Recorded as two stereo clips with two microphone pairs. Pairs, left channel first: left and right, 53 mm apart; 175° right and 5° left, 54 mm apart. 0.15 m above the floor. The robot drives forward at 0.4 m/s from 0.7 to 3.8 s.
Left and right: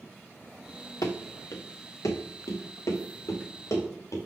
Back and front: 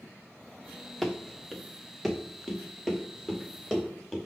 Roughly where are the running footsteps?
Left.